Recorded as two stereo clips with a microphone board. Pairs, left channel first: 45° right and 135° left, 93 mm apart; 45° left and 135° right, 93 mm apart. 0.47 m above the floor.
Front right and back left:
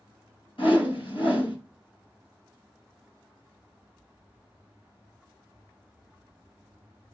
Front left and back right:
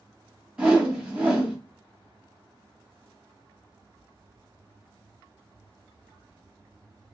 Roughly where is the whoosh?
Ahead right.